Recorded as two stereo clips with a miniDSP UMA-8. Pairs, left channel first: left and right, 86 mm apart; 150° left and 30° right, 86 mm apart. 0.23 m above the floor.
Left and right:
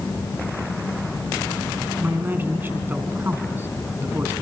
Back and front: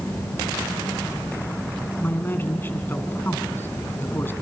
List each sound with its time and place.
2.0 s a man speaking: 150° right, 2.5 m